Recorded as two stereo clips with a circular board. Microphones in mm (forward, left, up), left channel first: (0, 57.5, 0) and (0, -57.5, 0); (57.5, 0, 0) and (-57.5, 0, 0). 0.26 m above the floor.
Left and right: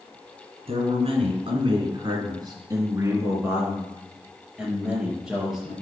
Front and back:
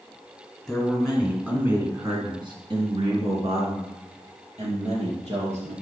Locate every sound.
0.7 s a man speaking: 85° right, 2.5 m; by 5.7 s 175° right, 5.5 m